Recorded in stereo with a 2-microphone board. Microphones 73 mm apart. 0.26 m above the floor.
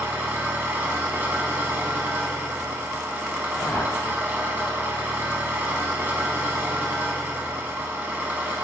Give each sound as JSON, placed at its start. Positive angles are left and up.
{"t": 0.0, "sound": "an engine running", "side_deg": -25, "distance_m": 0.8}
{"t": 3.5, "sound": "a whoosh", "side_deg": 20, "distance_m": 0.6}